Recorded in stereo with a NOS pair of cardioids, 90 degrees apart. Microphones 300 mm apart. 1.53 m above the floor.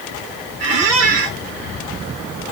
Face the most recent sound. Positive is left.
turn(degrees=-65)